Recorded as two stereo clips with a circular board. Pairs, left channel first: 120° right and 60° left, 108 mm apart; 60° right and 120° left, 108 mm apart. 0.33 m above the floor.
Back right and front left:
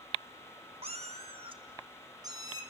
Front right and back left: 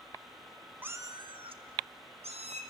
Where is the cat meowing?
50° left, 1.0 m; by 2.6 s 115° left, 2.5 m.